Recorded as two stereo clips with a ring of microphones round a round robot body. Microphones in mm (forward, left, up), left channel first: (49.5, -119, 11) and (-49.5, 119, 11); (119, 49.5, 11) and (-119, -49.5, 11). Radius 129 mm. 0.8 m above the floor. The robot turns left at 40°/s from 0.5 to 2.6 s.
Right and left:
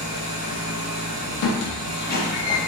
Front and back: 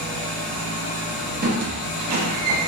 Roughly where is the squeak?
Right.